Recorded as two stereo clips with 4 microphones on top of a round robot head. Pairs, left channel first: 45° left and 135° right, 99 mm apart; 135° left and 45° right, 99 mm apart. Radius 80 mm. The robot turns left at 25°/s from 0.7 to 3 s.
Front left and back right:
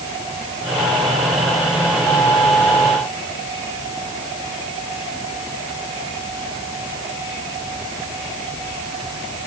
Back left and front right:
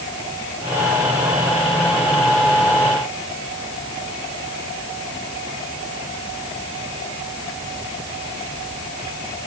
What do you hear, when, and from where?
Only background noise.